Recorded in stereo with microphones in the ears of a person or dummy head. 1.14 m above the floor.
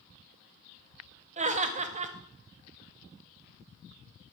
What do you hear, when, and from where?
1.4 s laughter: 35° right (ahead or behind), 0.8 m